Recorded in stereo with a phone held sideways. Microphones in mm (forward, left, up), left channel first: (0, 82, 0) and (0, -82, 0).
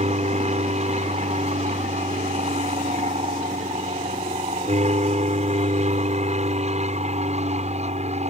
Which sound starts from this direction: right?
An aircraft, at 0.0 s.